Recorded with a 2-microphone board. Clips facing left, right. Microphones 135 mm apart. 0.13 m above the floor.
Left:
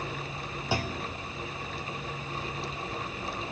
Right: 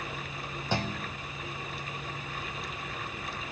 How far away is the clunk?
About 0.8 m.